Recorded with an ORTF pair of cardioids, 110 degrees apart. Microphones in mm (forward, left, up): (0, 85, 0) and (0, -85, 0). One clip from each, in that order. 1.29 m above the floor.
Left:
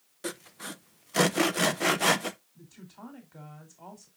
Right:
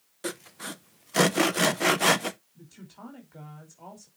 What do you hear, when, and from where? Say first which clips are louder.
0.2 s sawing: right 2 dB; 10° right, 0.5 m
2.5 s a woman speaking: right 1 dB; 5° right, 3.5 m